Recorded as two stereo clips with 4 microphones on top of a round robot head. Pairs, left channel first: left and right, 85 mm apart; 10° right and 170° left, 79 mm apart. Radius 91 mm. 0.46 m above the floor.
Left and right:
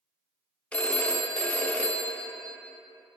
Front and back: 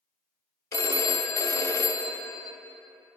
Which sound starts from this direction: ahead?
A phone ringing, at 0.7 s.